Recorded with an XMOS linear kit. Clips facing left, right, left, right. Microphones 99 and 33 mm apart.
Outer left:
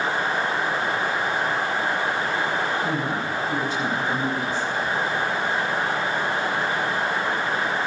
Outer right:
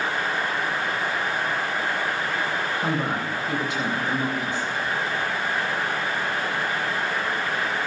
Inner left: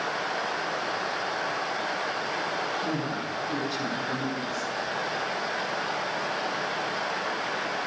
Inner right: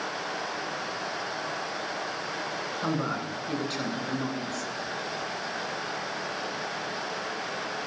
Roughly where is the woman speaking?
Right.